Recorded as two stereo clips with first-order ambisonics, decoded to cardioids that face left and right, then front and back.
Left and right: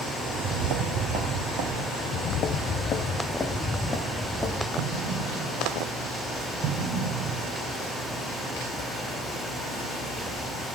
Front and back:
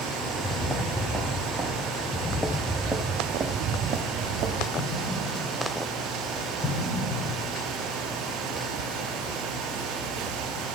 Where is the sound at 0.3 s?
85° right, 1.9 m; by 1.8 s 105° right, 3 m.